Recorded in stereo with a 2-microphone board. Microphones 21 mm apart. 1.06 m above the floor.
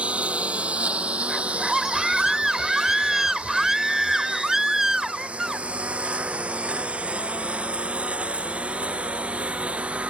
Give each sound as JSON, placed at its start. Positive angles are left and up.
{"t": 0.0, "sound": "a lawn mower", "side_deg": -80}
{"t": 1.3, "sound": "a scream", "side_deg": -20}